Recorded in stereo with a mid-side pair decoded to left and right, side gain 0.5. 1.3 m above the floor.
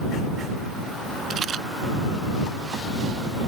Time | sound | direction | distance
1.3 | a rattle | 50° right | ?